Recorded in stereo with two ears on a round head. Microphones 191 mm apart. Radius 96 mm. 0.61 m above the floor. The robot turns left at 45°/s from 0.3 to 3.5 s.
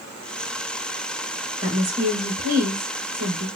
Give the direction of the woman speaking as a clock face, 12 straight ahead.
12 o'clock.